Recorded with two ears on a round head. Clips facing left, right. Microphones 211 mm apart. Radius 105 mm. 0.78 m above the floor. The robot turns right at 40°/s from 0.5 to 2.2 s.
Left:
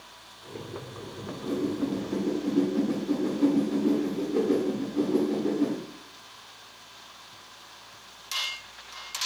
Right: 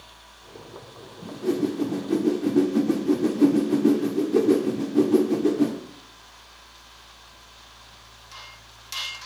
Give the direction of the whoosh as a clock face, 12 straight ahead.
4 o'clock.